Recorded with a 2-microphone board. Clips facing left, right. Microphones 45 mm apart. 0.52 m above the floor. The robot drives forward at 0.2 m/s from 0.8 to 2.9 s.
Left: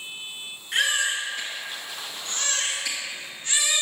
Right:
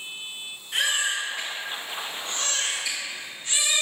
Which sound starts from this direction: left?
A baby crying, at 0.7 s.